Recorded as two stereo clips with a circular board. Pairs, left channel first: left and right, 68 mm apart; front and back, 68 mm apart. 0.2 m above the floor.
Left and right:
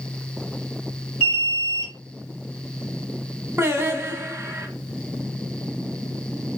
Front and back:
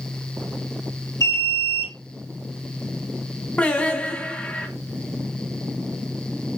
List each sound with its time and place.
1.2 s an alarm: 20° right, 3 m
3.6 s singing: 60° right, 0.7 m